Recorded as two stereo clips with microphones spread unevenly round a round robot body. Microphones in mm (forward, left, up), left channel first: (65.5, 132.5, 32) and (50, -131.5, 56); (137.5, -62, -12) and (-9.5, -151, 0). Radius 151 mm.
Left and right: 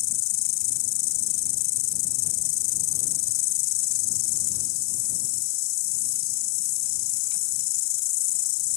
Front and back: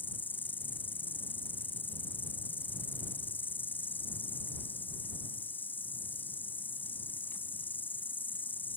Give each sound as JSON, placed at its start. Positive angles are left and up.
{"t": 0.0, "sound": "an insect", "azimuth_deg": 115}